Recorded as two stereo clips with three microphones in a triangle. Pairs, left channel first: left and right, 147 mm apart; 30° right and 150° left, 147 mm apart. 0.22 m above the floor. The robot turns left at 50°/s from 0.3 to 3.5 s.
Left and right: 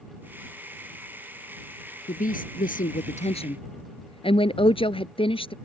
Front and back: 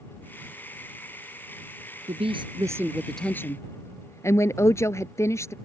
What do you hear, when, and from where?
2.1 s a woman speaking: 110° left; by 5.5 s 40° left